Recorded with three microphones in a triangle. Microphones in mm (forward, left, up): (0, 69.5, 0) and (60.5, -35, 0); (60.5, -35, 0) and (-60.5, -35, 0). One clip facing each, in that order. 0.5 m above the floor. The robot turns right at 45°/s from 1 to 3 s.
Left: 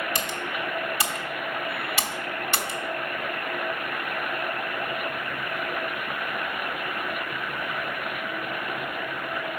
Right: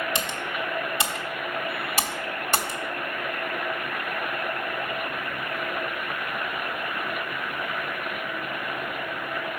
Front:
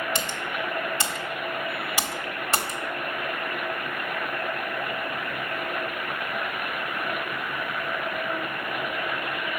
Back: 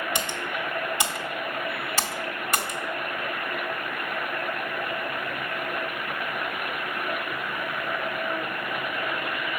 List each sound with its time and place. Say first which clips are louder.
0.1 s typing on a keyboard: even, even; 115° right, 1.2 m; by 2.8 s 35° right, 1.2 m